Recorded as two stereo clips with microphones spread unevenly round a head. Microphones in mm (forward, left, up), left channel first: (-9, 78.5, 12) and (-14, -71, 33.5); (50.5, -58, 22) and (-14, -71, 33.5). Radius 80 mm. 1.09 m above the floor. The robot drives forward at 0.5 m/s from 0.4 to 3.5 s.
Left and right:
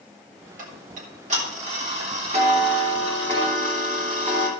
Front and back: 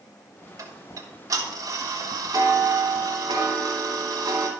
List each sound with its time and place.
0.6 s ticking: 130° right, 2.5 m; by 4.5 s 150° right, 3.5 m